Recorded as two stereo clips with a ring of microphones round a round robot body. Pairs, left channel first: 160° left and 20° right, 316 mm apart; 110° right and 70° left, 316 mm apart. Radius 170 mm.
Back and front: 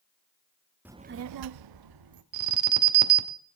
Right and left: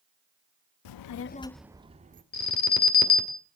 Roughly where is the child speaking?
Right.